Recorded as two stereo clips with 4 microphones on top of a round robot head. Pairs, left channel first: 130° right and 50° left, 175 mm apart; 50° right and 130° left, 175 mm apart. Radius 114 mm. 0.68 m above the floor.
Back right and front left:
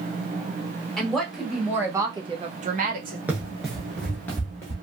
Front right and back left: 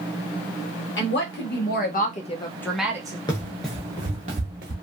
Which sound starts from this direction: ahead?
Running footsteps, at 3.3 s.